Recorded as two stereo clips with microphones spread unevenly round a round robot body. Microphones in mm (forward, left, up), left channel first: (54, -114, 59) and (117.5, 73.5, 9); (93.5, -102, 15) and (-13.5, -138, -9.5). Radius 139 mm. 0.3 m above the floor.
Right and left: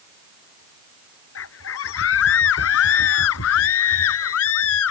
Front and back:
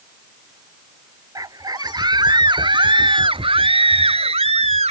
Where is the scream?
105° right; by 4.9 s 140° right.